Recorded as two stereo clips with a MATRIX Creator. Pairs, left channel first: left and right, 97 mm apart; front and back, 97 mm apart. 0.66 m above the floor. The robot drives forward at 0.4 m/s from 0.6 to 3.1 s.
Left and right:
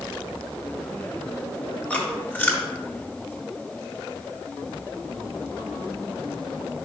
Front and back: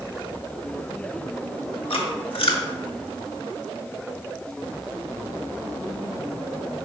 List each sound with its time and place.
1.9 s chewing: 20° left, 1.4 m